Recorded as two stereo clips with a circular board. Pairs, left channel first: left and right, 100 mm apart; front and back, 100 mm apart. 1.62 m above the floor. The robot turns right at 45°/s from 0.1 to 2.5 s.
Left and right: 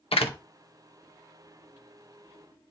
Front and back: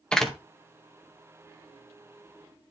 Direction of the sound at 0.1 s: 80° left.